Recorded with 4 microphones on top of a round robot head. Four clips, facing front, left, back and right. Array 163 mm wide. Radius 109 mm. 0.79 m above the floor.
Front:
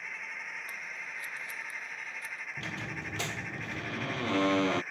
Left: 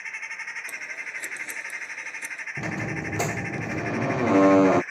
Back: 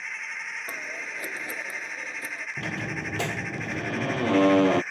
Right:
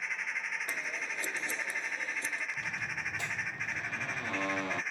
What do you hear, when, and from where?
0.7 s scissors: 170° right
2.6 s a squeak: 120° left